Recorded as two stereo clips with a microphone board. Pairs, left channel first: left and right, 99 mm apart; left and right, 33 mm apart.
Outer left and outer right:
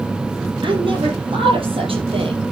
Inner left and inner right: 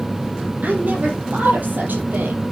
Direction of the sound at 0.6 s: 60° right (ahead or behind).